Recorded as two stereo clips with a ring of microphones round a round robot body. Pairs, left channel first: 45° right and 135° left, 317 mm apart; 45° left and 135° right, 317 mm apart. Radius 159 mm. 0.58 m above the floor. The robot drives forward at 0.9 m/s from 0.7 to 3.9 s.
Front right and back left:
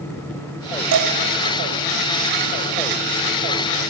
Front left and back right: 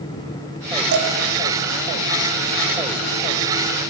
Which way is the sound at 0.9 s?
175° left.